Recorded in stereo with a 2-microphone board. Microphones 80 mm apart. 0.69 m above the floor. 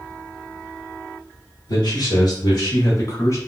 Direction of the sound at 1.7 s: 60° left (ahead or behind).